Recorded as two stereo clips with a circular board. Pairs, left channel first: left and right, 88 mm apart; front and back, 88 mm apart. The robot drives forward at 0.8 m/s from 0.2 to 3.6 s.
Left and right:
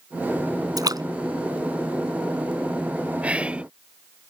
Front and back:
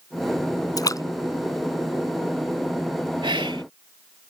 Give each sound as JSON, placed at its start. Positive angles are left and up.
{"t": 0.8, "sound": "a splash", "azimuth_deg": -45}
{"t": 3.2, "sound": "whispering", "azimuth_deg": -165}